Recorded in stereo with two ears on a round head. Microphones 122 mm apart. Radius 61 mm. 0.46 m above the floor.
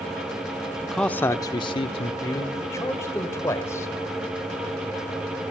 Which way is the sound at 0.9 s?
Centre (ahead or behind).